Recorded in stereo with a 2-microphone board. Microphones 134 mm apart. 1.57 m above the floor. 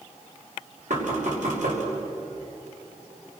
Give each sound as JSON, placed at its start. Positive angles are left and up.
{"t": 0.9, "sound": "knocking", "side_deg": -65, "distance_m": 5.5}